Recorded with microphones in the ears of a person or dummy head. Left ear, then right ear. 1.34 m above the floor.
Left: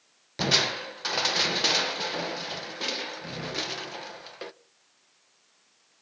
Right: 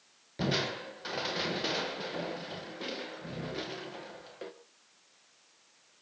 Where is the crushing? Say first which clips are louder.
Left 8 dB; 40° left (ahead or behind), 1.2 m.